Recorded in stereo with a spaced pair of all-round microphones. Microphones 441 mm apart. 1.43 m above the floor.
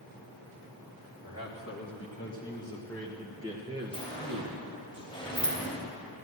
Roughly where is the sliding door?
Centre.